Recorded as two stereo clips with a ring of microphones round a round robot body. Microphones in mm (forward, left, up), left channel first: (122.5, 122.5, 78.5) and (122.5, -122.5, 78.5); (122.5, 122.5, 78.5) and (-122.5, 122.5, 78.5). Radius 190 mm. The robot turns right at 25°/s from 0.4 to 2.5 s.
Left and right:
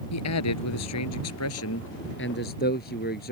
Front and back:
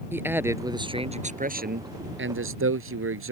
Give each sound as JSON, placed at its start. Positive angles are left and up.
{"t": 0.1, "sound": "a man speaking", "azimuth_deg": 100}